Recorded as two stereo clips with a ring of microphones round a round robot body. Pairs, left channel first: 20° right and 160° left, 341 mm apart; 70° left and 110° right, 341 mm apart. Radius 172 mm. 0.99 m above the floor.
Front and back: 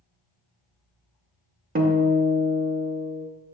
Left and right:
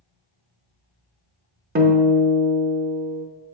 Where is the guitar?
155° right, 0.7 m.